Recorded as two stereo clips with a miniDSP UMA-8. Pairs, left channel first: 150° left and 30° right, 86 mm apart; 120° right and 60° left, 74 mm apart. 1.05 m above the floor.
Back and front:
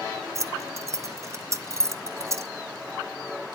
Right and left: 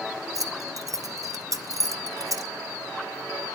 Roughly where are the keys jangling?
Ahead.